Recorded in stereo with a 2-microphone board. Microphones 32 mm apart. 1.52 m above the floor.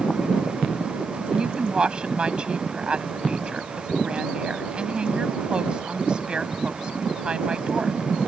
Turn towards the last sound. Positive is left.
turn(degrees=-30)  # may be behind; listen again after turning